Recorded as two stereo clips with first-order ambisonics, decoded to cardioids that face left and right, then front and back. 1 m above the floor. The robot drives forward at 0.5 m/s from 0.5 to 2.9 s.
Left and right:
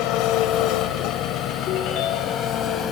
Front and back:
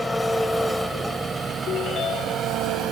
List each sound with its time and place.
0.0 s an engine running: 85° left, 1.2 m; by 2.9 s 140° left, 1.6 m
1.7 s a ringtone: 55° left, 1.5 m; by 2.5 s 70° left, 1.3 m